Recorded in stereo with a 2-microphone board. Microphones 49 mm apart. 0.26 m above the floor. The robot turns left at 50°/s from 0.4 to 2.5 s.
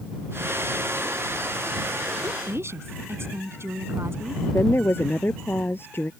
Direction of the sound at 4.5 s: 45° left (ahead or behind).